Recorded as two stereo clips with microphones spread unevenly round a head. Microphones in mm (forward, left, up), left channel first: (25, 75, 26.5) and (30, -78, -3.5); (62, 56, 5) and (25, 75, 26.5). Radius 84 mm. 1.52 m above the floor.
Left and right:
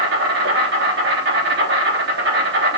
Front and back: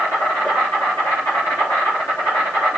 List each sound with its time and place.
0.0 s an insect: 95° right, 3.5 m